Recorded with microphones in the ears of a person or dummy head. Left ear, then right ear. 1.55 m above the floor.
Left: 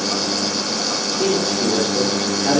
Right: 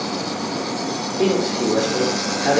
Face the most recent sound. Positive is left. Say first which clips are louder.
# right 2 dB
turn(degrees=-55)  # may be behind; listen again after turning